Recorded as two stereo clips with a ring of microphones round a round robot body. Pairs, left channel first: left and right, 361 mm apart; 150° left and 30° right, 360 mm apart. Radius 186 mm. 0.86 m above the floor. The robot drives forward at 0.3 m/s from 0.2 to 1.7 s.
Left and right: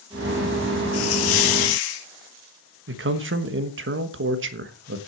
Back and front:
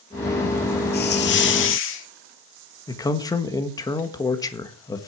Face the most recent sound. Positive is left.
turn(degrees=-135)